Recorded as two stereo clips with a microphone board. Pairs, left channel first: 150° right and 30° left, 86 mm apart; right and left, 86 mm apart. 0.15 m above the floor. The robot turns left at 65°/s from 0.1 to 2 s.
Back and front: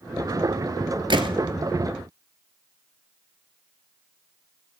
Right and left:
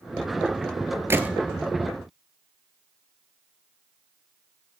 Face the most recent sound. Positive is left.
turn(degrees=-30)